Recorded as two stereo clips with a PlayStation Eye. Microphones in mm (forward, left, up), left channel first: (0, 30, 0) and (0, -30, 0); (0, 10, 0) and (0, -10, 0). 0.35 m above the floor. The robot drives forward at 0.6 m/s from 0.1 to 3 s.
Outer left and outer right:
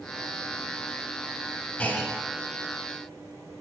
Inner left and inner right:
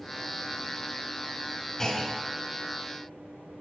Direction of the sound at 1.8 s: 30° left (ahead or behind).